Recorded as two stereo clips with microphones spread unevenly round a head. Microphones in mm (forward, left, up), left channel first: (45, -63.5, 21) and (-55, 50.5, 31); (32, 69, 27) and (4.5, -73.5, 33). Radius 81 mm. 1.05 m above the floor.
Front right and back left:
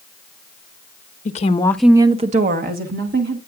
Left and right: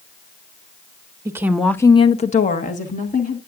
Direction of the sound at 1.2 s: 35° right.